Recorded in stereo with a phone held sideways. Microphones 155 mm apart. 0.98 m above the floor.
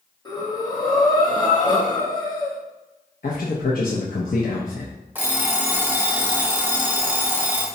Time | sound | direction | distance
0.2 | breathing | 25° left (ahead or behind) | 1.0 m
3.2 | a man speaking | 65° left (ahead or behind) | 0.5 m
5.2 | an alarm clock | 10° right (ahead or behind) | 0.7 m